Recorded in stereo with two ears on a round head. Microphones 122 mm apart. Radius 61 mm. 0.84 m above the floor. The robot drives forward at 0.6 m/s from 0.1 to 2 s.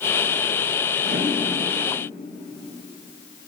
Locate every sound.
1.0 s a whoosh: 75° right (ahead or behind), 5.5 m